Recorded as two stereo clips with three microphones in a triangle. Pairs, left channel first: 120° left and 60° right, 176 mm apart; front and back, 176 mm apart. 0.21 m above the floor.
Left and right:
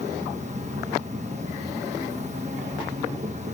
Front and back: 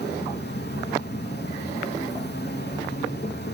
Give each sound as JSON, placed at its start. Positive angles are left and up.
{"t": 0.0, "sound": "an insect", "azimuth_deg": -15, "distance_m": 1.2}